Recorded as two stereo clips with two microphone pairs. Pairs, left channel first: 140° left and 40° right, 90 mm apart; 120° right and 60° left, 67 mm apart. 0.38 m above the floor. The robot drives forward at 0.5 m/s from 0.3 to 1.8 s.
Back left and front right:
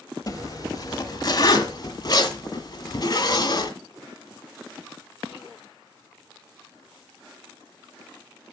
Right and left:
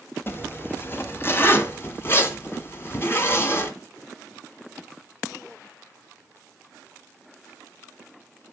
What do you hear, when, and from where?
0.3 s a zipper: 175° right, 0.9 m